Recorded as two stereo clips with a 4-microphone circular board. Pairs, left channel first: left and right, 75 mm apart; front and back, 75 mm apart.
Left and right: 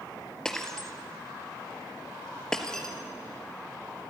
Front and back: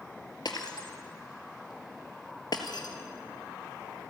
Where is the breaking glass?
10° left, 2.0 m.